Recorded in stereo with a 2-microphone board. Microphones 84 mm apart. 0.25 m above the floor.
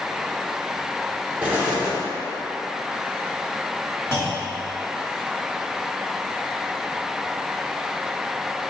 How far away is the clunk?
About 1.1 m.